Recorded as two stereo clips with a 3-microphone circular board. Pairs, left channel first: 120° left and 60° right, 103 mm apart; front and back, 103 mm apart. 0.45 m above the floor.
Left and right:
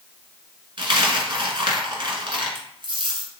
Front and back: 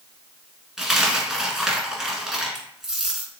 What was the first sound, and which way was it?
A dropped coin, 95° right.